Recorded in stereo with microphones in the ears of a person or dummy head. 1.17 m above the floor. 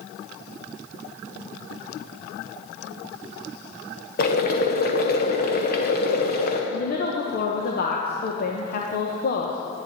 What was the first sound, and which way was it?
Boiling, 50° left (ahead or behind).